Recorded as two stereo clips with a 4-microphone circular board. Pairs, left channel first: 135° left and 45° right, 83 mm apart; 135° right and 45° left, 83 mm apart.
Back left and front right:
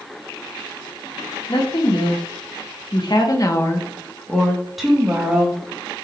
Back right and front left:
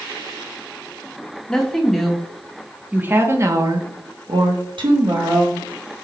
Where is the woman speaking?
145° left, 1.7 m; by 5.6 s 25° left, 1.6 m.